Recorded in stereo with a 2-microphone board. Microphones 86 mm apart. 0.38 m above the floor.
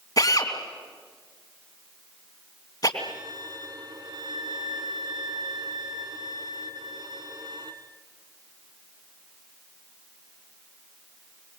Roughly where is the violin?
Right.